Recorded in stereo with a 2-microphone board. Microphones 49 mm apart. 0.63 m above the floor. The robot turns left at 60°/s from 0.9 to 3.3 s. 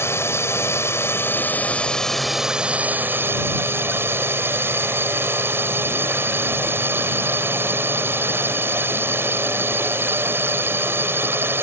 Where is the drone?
80° left; by 11.6 s 65° right.